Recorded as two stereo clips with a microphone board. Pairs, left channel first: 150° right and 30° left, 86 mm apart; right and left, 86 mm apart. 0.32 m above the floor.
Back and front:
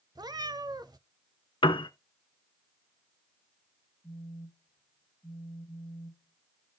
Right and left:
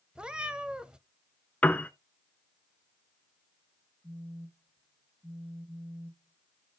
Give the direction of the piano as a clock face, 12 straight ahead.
5 o'clock.